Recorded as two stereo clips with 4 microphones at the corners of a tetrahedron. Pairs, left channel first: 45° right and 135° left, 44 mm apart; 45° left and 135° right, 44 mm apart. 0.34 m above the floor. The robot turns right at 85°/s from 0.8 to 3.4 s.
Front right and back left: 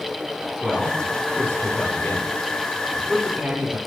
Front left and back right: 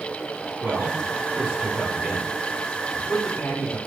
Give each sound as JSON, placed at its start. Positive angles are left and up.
{"t": 0.6, "sound": "a man speaking", "azimuth_deg": -150, "distance_m": 5.5}